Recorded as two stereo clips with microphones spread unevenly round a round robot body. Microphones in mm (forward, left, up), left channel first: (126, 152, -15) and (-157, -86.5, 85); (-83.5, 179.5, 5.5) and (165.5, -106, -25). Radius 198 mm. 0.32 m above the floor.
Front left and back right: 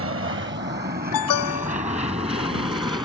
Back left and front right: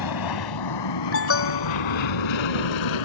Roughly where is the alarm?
Left.